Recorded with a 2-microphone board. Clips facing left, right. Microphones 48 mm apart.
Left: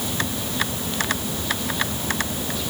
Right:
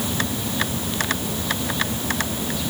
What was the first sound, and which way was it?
Only background noise.